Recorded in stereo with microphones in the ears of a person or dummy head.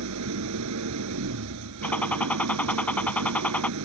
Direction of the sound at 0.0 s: 75° right (ahead or behind).